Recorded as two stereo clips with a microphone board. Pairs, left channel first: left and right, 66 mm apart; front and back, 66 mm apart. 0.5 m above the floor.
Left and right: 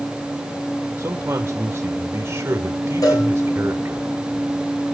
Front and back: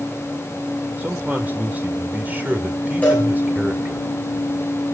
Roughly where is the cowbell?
Ahead left.